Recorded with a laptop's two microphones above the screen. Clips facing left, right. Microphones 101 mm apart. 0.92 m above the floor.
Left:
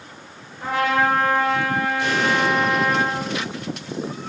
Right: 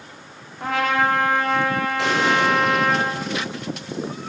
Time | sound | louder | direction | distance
0.6 | a trumpet | left 1 dB | 70° right (ahead or behind) | 2.5 m
2.0 | an explosion | right 3 dB | 80° right | 3 m